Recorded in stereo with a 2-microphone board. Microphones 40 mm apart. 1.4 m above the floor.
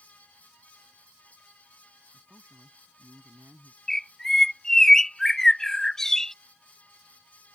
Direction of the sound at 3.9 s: 10° left (ahead or behind).